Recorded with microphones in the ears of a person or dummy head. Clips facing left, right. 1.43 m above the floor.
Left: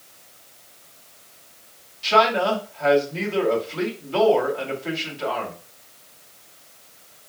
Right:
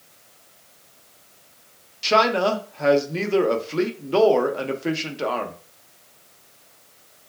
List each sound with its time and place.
2.0 s a man speaking: 70° right (ahead or behind), 0.7 m